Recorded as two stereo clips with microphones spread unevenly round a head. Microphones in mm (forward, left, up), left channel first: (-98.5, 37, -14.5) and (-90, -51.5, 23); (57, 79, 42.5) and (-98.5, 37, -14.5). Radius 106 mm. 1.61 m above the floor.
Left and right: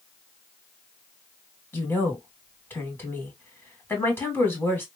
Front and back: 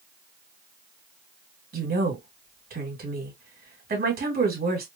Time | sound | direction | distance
1.7 | a woman speaking | 165° left | 2 m